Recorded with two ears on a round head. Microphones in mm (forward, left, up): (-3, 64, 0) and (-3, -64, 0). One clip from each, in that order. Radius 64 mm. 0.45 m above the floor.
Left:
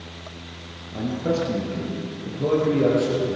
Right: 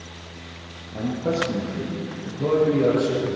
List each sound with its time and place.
0.9 s a man speaking: 10° left (ahead or behind), 6.5 m; by 3.4 s 5° left (ahead or behind), 8 m